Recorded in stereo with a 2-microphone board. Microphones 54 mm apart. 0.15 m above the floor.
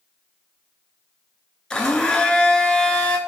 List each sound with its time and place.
1.7 s a blender: 15° left (ahead or behind), 0.5 m